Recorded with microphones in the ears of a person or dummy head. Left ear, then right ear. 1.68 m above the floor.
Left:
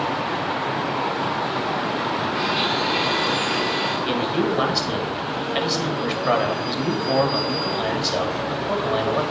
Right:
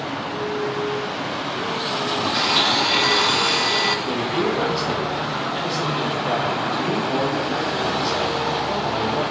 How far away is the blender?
About 0.9 m.